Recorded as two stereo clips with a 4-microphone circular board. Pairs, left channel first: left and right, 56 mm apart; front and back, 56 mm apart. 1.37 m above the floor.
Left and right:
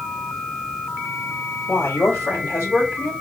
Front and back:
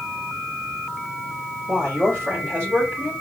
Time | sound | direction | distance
1.7 | a woman speaking | 135° left | 2.5 m